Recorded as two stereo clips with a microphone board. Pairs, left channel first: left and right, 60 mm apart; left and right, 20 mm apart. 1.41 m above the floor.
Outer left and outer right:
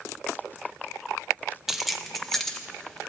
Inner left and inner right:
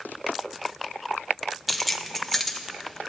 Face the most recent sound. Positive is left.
turn(degrees=15)  # may be behind; listen again after turning